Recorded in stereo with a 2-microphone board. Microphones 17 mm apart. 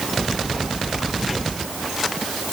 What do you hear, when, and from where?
Only background noise.